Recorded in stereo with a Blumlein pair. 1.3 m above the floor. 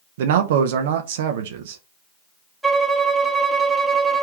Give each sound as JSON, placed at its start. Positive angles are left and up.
{"t": 0.2, "sound": "a man speaking", "azimuth_deg": -55, "distance_m": 0.6}
{"t": 2.6, "sound": "a violin", "azimuth_deg": -5, "distance_m": 0.6}